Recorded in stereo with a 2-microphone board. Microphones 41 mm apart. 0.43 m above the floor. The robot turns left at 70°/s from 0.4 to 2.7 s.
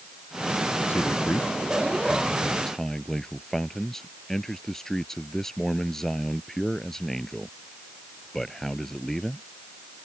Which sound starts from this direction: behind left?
A man speaking, at 0.9 s.